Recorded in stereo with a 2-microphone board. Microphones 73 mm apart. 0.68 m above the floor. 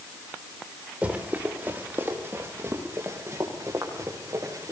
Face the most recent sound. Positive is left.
turn(degrees=-50)  # may be behind; listen again after turning